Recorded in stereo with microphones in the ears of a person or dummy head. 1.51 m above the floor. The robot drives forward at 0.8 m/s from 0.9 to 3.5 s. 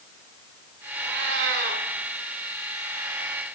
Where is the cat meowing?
65° right (ahead or behind), 2.0 m; by 1.8 s 60° right (ahead or behind), 2 m.